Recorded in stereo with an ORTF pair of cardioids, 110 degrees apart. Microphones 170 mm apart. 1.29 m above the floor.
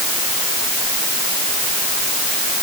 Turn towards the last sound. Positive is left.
No sound to turn to.